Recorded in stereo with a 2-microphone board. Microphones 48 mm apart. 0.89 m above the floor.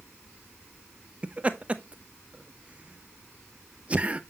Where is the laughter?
25° right (ahead or behind), 0.8 m.